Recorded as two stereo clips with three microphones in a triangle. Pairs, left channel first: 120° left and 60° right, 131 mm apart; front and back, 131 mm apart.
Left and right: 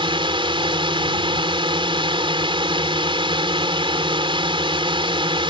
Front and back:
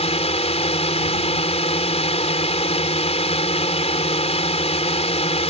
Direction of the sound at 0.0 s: 20° right.